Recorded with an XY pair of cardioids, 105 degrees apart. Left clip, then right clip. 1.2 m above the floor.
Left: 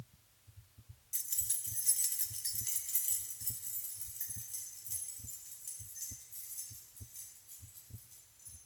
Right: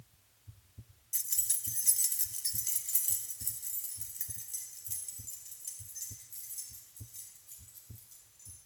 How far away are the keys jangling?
About 0.9 m.